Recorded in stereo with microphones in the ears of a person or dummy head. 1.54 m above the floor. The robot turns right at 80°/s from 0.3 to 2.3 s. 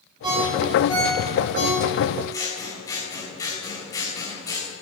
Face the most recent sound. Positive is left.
turn(degrees=15)  # may be behind; listen again after turning